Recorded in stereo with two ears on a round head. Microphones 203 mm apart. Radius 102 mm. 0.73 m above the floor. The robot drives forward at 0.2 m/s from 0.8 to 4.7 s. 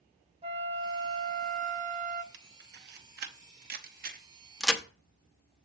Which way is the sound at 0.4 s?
25° right (ahead or behind).